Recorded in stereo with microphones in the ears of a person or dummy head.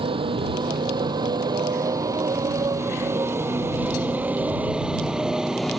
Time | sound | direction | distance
0.0 | a motorcycle | 25° right (ahead or behind) | ?